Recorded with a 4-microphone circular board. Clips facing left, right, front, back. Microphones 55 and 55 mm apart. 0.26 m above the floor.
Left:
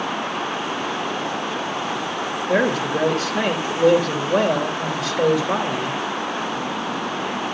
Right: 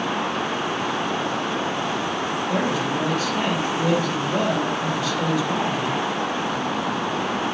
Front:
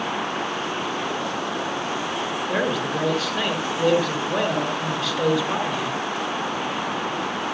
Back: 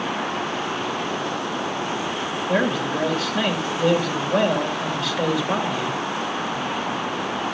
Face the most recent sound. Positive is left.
turn(degrees=90)